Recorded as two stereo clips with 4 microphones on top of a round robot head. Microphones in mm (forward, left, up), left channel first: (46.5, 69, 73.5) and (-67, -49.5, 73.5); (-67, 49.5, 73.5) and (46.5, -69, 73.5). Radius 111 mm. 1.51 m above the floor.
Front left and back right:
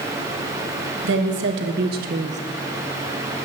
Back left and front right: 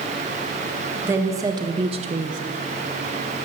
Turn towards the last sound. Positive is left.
turn(degrees=-80)